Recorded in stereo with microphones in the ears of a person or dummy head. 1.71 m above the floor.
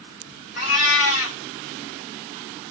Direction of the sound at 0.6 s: 50° left (ahead or behind).